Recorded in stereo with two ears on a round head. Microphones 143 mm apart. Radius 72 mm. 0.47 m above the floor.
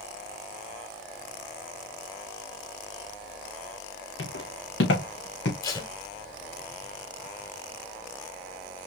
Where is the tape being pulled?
25° left (ahead or behind), 1.6 m.